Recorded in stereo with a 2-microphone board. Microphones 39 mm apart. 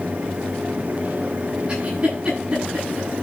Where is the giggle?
25° right (ahead or behind), 9.5 m.